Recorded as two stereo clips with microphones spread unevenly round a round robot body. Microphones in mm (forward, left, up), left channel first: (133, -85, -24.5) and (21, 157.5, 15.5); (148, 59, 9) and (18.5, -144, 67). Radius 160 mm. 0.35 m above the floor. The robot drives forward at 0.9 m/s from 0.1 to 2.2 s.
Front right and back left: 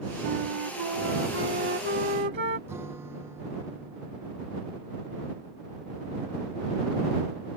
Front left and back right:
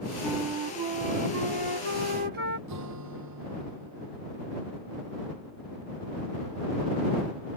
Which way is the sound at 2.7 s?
165° right.